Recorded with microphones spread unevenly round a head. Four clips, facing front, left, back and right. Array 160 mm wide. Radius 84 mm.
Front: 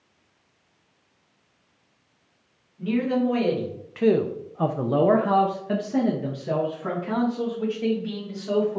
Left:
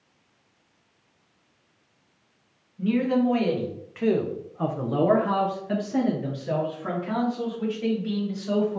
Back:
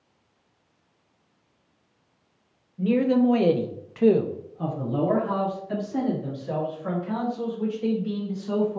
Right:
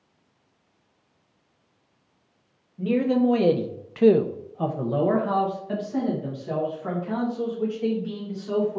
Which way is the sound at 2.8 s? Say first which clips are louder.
Right 1 dB, back 3 dB; 135° right.